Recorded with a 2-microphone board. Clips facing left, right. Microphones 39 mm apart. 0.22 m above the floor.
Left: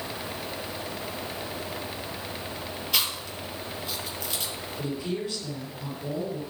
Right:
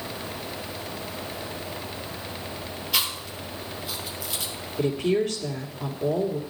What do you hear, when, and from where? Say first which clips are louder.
2.9 s chewing: right 1 dB; centre (ahead or behind), 3 m
4.8 s a woman speaking: right 9 dB; 70° right (ahead or behind), 2.5 m